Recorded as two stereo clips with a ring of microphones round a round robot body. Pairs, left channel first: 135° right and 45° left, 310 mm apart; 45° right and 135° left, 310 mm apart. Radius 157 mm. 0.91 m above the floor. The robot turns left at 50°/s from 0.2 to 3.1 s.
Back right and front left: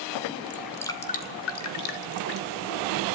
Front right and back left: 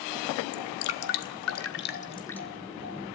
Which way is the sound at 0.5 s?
40° right.